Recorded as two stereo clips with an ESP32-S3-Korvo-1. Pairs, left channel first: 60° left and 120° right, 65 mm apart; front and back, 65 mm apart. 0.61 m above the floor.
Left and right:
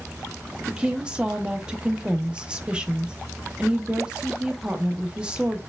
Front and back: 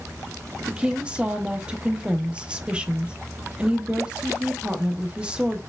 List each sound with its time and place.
0.7 s a woman speaking: 155° right, 0.5 m